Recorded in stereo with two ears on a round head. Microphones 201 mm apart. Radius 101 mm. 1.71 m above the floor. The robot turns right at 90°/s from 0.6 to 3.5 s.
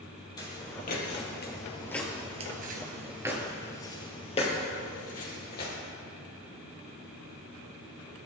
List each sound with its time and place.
0.4 s footsteps: 20° left (ahead or behind), 3.5 m; by 5.7 s 45° left (ahead or behind), 3.5 m